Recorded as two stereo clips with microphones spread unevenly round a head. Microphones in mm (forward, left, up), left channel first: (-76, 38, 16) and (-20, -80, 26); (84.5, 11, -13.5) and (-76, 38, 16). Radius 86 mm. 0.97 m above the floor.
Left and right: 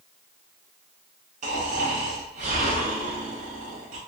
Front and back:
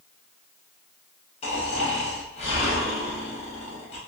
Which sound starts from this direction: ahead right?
Snoring, at 1.4 s.